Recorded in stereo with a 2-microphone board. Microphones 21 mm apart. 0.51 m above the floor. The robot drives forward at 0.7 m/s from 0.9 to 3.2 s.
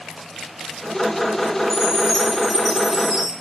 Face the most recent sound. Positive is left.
turn(degrees=-5)  # may be behind; listen again after turning